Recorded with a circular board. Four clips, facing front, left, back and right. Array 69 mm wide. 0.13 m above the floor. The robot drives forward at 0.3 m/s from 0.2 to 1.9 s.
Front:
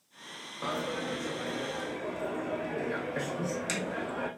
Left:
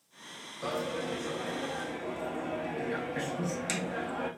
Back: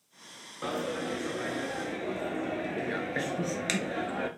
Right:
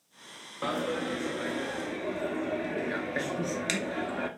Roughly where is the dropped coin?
Right.